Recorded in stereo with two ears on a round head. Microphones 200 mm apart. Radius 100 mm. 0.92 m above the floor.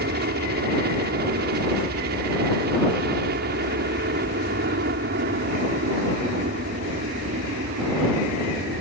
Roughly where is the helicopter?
Right.